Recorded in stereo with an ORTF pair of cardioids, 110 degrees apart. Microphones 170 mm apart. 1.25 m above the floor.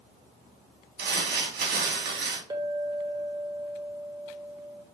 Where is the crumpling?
70° right, 2.5 m.